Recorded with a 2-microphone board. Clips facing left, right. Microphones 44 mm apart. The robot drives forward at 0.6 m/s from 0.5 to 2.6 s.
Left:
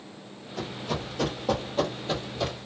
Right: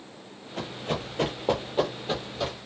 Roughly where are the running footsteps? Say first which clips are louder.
Right 1 dB; right.